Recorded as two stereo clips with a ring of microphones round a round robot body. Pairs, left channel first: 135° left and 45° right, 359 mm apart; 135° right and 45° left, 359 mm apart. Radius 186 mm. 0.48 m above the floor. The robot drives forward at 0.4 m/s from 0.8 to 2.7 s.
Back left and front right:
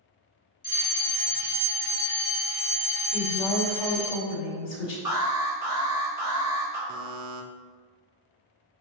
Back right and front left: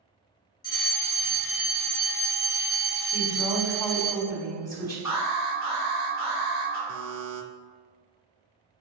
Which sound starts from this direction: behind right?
An alarm, at 5.0 s.